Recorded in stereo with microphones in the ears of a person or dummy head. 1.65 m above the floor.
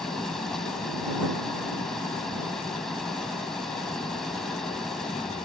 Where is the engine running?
5° left (ahead or behind).